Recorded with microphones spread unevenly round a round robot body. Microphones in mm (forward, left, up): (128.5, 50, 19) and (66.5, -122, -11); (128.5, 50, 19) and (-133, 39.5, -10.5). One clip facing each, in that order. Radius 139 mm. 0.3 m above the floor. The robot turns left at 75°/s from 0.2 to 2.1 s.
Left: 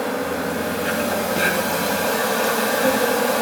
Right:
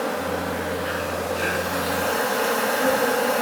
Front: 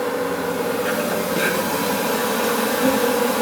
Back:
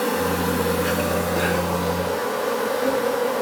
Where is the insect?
165° left, 3 m; by 3.4 s 20° left, 3 m.